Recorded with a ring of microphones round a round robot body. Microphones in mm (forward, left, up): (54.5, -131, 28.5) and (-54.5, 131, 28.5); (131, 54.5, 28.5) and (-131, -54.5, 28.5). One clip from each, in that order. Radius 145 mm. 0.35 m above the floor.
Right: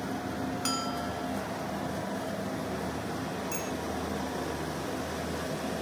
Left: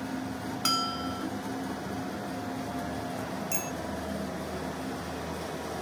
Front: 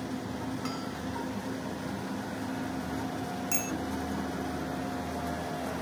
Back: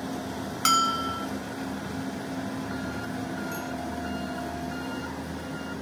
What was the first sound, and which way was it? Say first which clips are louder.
A bell: left 6 dB, back 14 dB; 175° right.